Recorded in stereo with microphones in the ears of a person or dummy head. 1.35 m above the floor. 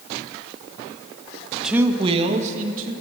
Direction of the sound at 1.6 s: Centre (ahead or behind).